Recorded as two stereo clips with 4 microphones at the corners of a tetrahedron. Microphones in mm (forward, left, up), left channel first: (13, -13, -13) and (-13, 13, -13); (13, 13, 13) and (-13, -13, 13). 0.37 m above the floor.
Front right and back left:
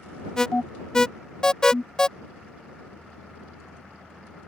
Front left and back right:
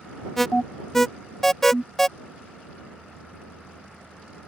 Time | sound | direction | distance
0.4 | an alarm | 15° right | ?